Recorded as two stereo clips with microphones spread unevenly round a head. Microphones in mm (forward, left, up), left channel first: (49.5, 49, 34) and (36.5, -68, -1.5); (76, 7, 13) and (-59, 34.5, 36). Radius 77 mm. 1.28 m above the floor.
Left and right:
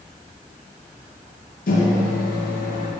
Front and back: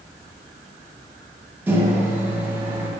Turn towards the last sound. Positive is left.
turn(degrees=90)